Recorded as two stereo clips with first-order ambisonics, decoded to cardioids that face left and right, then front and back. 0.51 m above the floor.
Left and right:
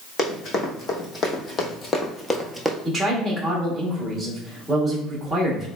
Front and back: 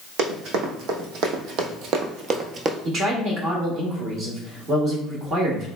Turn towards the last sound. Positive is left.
turn(degrees=180)